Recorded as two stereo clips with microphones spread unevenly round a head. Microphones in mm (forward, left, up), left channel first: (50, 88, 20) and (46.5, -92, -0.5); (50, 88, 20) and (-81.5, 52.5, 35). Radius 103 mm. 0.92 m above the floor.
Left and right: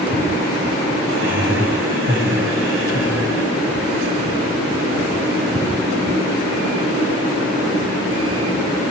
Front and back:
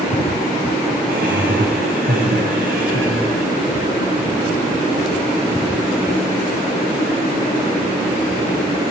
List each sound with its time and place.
1.1 s laughter: 125° right, 7 m